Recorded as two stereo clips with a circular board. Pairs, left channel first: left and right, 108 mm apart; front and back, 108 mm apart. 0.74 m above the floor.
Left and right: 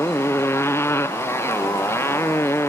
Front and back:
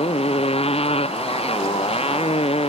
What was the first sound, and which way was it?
A motorcycle, 20° left.